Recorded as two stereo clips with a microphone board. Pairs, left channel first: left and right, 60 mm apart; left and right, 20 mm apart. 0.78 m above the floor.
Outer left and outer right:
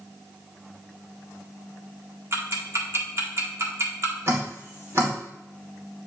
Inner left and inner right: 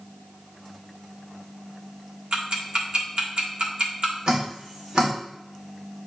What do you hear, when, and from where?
2.3 s ticking: 50° right (ahead or behind), 1.6 m
4.3 s dripping: 50° right (ahead or behind), 2.5 m